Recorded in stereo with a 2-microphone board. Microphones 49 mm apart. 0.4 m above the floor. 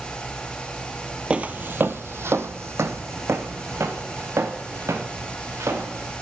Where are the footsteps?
25° right (ahead or behind), 0.5 m; by 6.1 s 75° right (ahead or behind), 3 m.